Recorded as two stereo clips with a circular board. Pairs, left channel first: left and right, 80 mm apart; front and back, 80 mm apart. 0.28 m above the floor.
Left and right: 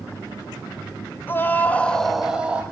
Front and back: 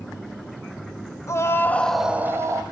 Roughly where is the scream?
Ahead left.